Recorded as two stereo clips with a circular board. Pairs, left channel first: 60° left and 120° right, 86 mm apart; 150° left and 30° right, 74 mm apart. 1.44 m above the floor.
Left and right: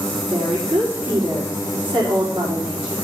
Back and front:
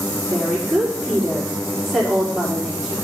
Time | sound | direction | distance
0.3 | a woman speaking | 115° right | 4.5 m